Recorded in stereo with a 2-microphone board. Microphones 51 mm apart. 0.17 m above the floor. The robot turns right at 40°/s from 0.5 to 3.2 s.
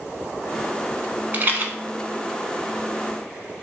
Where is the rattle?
40° right (ahead or behind), 0.7 m; by 1.7 s 45° right (ahead or behind), 0.7 m.